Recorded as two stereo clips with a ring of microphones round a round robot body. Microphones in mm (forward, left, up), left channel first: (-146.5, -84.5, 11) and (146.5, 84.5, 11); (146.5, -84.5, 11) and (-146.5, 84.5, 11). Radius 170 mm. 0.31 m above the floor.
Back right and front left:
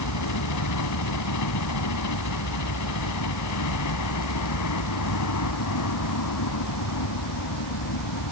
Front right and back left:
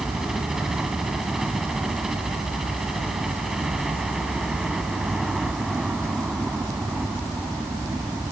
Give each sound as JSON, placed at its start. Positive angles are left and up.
{"t": 0.0, "sound": "a helicopter", "azimuth_deg": -120}